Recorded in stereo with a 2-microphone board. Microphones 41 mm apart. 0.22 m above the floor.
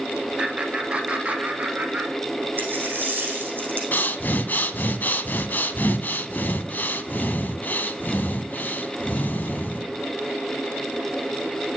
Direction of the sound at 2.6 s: 55° right (ahead or behind).